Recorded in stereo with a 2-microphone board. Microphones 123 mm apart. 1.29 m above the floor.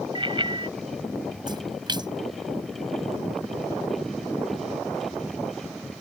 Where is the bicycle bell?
40° right (ahead or behind).